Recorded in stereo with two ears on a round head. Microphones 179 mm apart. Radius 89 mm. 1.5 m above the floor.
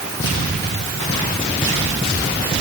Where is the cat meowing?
I don't hear a cat meowing.